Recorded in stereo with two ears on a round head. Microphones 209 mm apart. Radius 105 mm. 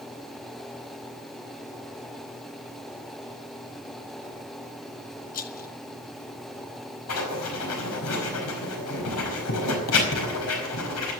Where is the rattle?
40° left (ahead or behind), 1.0 m.